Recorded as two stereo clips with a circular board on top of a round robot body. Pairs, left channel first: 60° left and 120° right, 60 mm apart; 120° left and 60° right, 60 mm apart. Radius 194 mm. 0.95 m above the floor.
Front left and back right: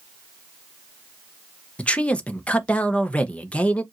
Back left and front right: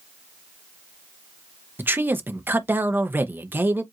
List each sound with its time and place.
1.8 s a man speaking: 10° right, 1.0 m